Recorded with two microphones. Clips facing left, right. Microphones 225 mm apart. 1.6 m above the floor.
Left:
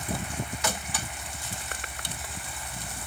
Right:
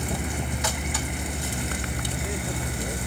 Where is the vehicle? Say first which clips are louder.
Right 4 dB; 65° right (ahead or behind); by 3.1 s 70° right (ahead or behind).